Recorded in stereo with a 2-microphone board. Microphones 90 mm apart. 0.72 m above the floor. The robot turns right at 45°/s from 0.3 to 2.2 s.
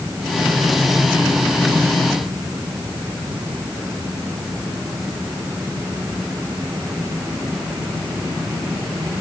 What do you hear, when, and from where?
Only background noise.